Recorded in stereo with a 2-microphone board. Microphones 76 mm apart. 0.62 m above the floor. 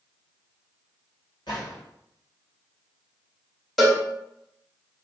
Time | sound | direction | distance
1.5 | a gunshot | 75° left (ahead or behind) | 2 m
3.8 | a cowbell | centre (ahead or behind) | 1.2 m